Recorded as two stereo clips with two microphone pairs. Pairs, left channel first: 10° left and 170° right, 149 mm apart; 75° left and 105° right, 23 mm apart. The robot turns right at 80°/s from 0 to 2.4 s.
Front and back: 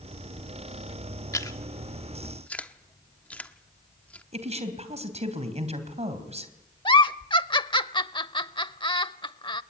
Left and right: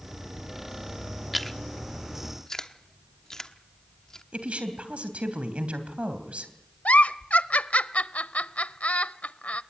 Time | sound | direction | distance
1.3 | chewing | 10° right | 1.1 m
4.3 | a woman speaking | 130° right | 3 m
6.8 | a giggle | 65° left | 0.6 m